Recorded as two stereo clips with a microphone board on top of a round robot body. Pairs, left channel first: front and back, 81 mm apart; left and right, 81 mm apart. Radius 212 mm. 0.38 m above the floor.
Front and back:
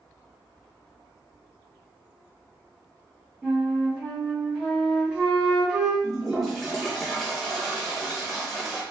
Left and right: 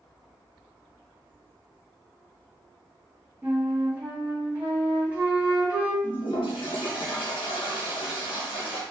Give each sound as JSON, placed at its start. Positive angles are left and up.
{"t": 3.4, "sound": "a flute", "azimuth_deg": -120, "distance_m": 1.5}
{"t": 6.0, "sound": "a toilet flushing", "azimuth_deg": 90, "distance_m": 0.8}